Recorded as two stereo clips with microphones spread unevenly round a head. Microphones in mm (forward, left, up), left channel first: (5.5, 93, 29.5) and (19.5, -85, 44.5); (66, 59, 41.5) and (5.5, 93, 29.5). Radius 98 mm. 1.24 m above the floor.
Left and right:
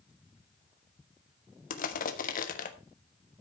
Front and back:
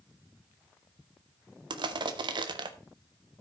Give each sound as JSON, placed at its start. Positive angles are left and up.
{"t": 1.7, "sound": "crushing", "azimuth_deg": 145, "distance_m": 1.2}